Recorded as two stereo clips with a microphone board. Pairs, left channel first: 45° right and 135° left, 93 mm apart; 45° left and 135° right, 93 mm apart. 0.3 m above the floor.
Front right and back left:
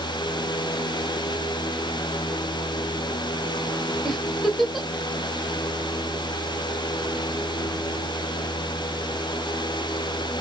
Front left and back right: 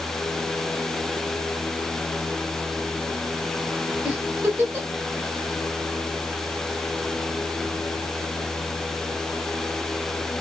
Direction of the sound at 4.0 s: 130° right.